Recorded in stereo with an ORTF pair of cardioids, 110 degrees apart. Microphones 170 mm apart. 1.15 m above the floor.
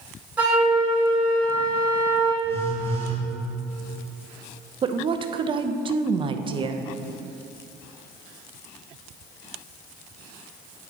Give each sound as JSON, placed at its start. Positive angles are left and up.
{"t": 0.4, "sound": "a flute", "azimuth_deg": -10, "distance_m": 2.5}
{"t": 2.4, "sound": "a phone buzzing", "azimuth_deg": 15, "distance_m": 2.5}
{"t": 4.8, "sound": "a woman speaking", "azimuth_deg": -30, "distance_m": 0.6}